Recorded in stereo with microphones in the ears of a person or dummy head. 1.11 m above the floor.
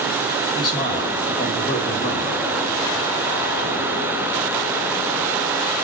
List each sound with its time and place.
0.6 s a man speaking: 25° left (ahead or behind), 6 m